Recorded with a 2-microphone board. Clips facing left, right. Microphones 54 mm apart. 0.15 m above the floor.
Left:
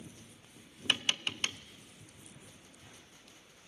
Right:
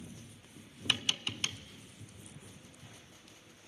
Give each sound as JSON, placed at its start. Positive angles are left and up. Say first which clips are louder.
{"t": 0.9, "sound": "tapping", "louder": "left 1 dB", "side_deg": 35, "distance_m": 0.7}